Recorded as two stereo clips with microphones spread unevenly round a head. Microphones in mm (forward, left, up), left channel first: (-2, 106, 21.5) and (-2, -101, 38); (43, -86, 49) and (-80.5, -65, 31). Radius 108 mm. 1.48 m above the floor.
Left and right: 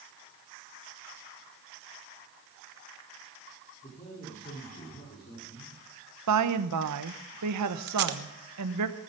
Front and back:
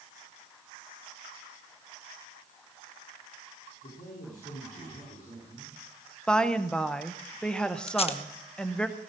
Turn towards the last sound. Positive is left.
turn(degrees=-50)